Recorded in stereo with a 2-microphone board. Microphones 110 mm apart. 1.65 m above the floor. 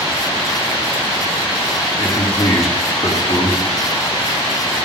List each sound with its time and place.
2.0 s a man speaking: 85° left, 3.5 m